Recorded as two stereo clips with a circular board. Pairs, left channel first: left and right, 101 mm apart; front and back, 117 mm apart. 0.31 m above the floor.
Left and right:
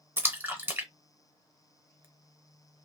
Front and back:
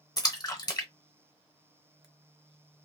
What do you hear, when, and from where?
0.2 s a splash: 35° right, 0.8 m